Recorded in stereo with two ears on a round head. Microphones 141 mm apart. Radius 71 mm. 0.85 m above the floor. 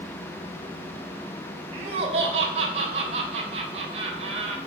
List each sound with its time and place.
1.7 s laughter: 40° right (ahead or behind), 3 m